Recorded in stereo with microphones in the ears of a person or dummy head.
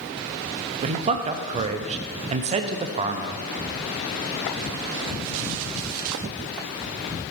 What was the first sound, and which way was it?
A man speaking, 35° right (ahead or behind).